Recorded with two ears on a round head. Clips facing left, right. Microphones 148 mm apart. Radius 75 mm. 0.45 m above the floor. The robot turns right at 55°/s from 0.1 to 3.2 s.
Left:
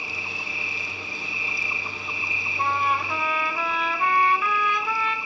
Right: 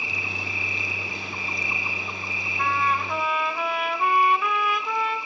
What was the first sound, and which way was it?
An insect, 110° right.